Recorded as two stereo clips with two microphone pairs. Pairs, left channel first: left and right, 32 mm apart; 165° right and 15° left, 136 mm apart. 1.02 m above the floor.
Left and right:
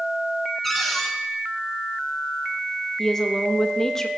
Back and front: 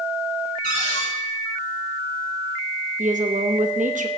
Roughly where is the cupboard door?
Behind.